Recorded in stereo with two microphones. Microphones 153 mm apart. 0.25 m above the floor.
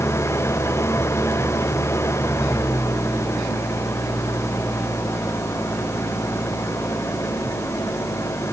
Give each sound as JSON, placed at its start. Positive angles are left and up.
{"t": 0.0, "sound": "an engine running", "side_deg": 15}